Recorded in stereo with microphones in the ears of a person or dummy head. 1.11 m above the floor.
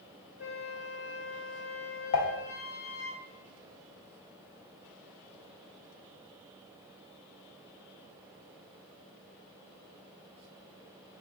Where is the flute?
30° left (ahead or behind), 0.6 m.